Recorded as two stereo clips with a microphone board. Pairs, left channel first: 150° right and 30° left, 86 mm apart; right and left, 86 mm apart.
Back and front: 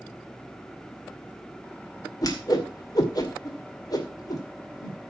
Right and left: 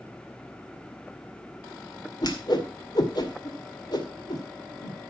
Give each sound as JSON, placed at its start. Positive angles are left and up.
{"t": 2.2, "sound": "a whoosh", "azimuth_deg": -115, "distance_m": 2.0}